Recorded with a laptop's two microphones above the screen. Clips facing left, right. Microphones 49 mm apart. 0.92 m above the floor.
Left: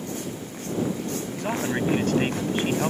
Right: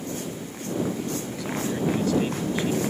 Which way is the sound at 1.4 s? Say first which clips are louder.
Left 3 dB; 50° left (ahead or behind).